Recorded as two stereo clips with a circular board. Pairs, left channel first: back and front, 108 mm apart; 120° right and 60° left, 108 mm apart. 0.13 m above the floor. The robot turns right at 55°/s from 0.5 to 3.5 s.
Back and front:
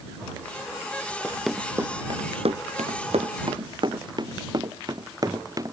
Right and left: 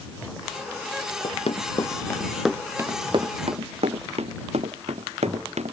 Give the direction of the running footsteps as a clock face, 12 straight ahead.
3 o'clock.